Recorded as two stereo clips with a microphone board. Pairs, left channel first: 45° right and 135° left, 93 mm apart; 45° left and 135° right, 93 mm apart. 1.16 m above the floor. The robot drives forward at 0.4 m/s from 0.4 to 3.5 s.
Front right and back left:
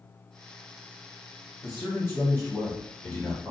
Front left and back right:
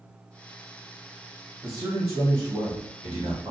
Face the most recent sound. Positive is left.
turn(degrees=-120)